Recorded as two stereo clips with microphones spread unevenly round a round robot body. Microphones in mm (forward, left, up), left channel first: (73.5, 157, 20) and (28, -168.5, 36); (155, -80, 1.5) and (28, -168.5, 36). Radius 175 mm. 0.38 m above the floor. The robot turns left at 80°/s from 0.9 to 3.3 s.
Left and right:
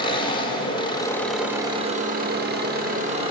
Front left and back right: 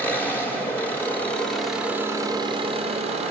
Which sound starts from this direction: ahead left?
An engine running, at 0.0 s.